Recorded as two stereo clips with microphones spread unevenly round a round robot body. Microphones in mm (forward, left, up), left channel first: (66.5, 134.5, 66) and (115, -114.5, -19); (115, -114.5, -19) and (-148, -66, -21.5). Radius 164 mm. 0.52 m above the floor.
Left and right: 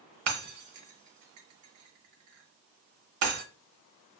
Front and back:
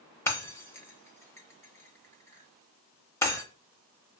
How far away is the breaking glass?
About 0.8 m.